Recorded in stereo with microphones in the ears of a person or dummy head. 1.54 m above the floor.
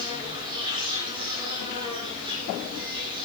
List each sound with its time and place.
0.0 s an insect: 40° right (ahead or behind), 6.5 m